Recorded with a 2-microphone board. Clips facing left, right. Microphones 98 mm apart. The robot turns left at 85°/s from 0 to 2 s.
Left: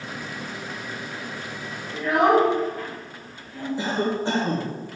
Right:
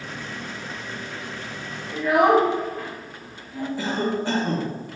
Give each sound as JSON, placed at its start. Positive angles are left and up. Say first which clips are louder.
{"t": 1.9, "sound": "a child speaking", "louder": "right 1 dB", "side_deg": -5, "distance_m": 2.0}
{"t": 3.8, "sound": "a cough", "louder": "left 1 dB", "side_deg": 25, "distance_m": 1.1}